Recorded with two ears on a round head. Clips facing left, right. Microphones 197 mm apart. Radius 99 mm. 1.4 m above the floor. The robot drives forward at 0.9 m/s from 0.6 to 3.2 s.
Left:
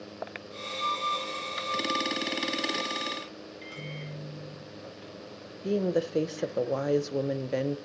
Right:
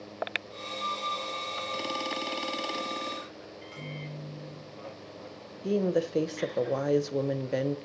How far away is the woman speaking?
About 0.9 m.